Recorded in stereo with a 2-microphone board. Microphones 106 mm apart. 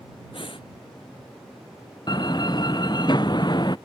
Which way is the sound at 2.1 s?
45° left (ahead or behind).